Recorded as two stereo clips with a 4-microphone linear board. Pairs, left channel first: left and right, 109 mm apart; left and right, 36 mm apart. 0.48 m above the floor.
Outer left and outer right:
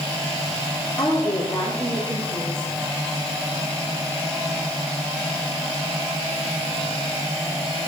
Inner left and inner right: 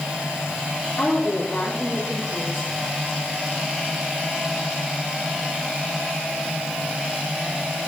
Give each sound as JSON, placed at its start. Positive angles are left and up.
{"t": 1.0, "sound": "a woman speaking", "side_deg": 10, "distance_m": 4.5}